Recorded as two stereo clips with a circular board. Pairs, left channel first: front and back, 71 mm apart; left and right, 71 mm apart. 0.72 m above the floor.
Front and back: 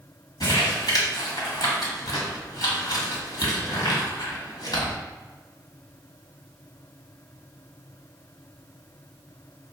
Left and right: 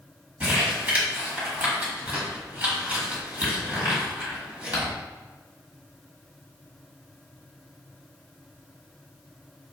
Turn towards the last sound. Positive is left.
turn(degrees=-25)